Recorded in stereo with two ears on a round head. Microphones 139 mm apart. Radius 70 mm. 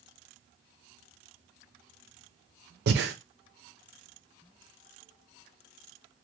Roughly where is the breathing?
Right.